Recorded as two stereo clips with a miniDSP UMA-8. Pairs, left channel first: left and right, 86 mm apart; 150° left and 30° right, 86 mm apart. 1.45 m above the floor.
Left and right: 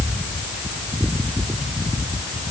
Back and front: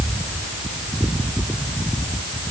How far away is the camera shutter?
I don't hear a camera shutter.